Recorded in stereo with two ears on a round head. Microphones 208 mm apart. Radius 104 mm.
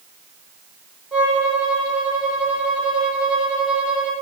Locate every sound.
1.1 s a violin: 5° right (ahead or behind), 8.5 m